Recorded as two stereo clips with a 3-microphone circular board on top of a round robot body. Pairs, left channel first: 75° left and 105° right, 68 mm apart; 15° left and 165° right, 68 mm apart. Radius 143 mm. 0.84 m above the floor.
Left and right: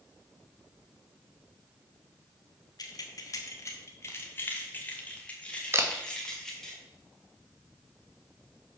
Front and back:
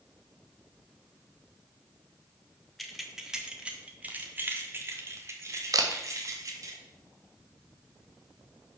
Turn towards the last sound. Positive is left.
turn(degrees=-150)